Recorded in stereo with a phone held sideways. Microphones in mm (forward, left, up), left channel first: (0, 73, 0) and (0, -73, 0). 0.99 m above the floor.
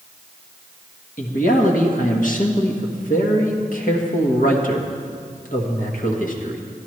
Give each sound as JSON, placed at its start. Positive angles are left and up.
{"t": 1.2, "sound": "a man speaking", "side_deg": 70, "distance_m": 1.3}